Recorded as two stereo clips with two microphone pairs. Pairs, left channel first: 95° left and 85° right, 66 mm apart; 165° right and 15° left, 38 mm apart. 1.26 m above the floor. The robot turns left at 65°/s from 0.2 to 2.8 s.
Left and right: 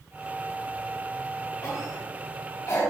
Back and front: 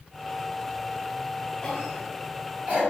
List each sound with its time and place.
1.6 s a cough: 125° left, 3 m; by 2.8 s 50° left, 3 m